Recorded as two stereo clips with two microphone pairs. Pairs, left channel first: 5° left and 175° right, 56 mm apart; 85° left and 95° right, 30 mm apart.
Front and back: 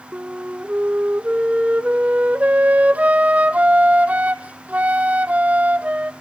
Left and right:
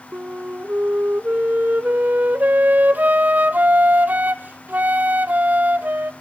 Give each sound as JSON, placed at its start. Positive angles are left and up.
{"t": 0.1, "sound": "a flute", "azimuth_deg": -110, "distance_m": 0.6}